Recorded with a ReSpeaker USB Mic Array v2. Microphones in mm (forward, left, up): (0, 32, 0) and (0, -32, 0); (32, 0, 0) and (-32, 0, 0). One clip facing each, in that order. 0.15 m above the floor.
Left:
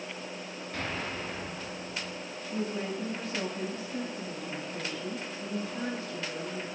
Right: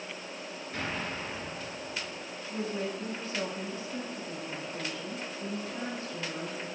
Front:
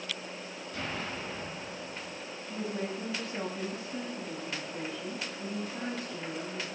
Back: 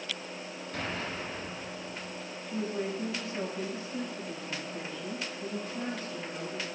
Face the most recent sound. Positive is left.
turn(degrees=-10)